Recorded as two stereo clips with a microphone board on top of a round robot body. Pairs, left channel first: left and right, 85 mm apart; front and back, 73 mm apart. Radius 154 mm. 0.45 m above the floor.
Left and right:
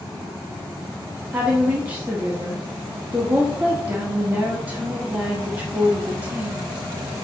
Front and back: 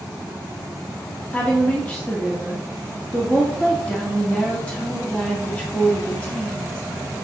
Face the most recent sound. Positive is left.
turn(degrees=-45)